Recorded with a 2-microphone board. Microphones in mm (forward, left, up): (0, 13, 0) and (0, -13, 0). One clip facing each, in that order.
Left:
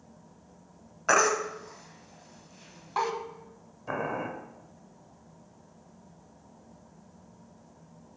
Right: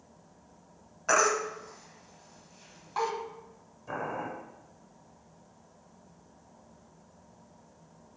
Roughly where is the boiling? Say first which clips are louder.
Left 3 dB; left.